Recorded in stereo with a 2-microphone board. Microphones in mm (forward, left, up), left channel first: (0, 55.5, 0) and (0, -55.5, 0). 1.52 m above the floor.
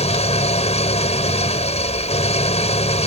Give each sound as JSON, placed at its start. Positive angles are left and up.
{"t": 0.0, "sound": "an engine running", "side_deg": 70}